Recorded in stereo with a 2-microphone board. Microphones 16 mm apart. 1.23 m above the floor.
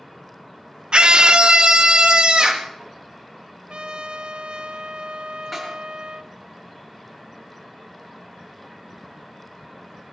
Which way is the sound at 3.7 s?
85° right.